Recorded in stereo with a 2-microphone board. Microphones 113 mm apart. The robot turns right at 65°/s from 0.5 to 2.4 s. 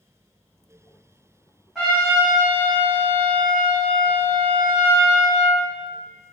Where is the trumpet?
5° right, 1.7 m; by 5.6 s 35° left, 1.7 m.